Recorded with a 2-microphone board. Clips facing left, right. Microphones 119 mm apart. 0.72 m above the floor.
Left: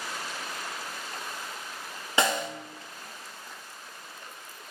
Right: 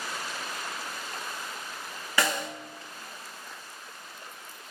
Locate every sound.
2.2 s a snare drum: 25° left (ahead or behind), 0.5 m